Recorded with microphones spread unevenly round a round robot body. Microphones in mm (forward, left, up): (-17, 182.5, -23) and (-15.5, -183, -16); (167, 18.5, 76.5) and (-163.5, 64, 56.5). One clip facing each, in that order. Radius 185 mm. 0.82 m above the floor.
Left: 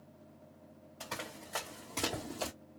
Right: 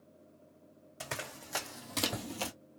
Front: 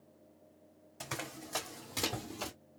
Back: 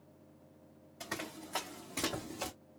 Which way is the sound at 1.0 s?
50° right.